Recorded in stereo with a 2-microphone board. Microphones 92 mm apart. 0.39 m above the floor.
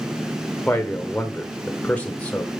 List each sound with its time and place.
0.7 s a man speaking: 15° left (ahead or behind), 1.2 m